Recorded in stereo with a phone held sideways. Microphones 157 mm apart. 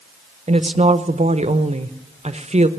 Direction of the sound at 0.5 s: 45° right (ahead or behind).